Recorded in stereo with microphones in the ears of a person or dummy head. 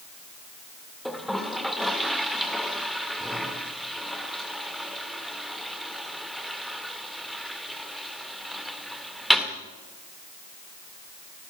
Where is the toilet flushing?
Centre (ahead or behind), 1.6 m.